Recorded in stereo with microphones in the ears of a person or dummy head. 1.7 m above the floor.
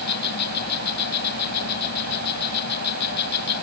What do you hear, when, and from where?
0.0 s an insect: 60° left (ahead or behind)